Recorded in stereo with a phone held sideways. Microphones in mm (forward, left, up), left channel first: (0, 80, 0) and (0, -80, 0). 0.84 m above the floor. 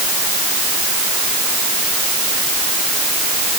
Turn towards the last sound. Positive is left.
No sound to turn to.